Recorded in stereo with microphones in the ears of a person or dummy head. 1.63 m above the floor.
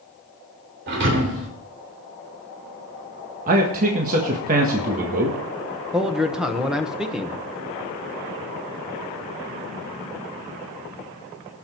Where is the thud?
60° right (ahead or behind), 3 m.